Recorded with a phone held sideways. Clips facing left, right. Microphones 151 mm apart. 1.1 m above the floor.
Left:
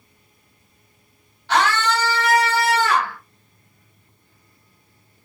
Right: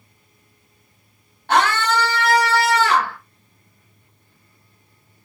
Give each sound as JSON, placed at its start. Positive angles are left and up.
{"t": 1.5, "sound": "a scream", "side_deg": -55, "distance_m": 2.5}